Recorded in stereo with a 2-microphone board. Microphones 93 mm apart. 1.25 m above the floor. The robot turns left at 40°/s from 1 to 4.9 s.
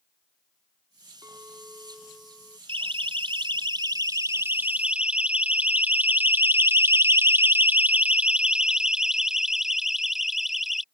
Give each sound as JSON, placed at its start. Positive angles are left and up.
{"t": 1.2, "sound": "a clink", "azimuth_deg": -150}
{"t": 2.7, "sound": "a siren", "side_deg": -80}